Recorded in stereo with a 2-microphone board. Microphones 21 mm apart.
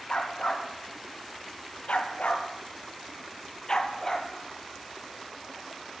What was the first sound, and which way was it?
A dog barking, 50° left (ahead or behind).